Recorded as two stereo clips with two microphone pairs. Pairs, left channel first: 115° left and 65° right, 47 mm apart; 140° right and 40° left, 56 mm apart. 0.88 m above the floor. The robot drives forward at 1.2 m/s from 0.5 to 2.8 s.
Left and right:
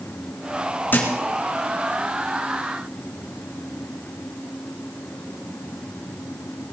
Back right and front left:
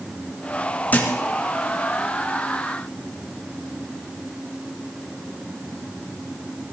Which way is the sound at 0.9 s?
165° left.